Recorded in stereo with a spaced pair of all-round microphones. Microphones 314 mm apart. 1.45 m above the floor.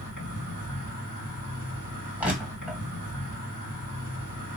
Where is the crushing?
5° right (ahead or behind), 1.5 m.